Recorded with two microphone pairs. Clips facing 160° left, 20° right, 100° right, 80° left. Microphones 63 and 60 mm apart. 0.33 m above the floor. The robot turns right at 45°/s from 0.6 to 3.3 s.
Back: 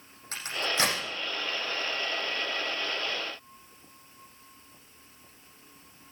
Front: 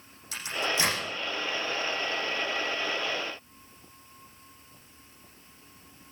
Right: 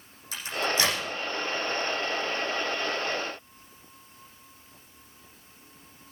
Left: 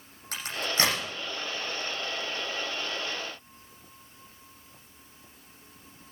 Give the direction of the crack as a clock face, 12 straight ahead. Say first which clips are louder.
Front 1 dB, right 3 dB; 8 o'clock.